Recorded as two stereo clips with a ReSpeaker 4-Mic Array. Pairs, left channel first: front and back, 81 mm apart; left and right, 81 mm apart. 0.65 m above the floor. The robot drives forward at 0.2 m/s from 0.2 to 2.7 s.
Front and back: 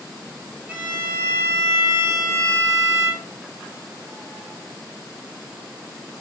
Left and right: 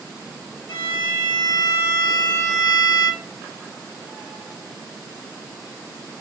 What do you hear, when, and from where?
0.7 s a violin: 115° left, 1.0 m; by 3.2 s 130° left, 1.2 m